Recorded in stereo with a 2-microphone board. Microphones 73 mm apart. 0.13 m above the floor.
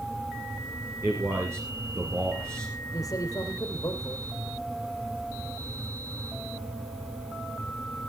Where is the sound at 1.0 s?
40° right (ahead or behind), 2 m.